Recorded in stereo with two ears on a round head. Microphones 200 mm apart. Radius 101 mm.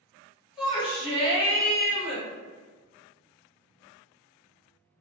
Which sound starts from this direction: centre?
A shout, at 0.6 s.